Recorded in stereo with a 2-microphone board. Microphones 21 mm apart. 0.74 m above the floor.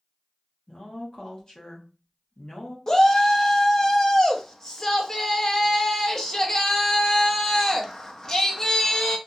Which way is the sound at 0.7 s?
40° left (ahead or behind).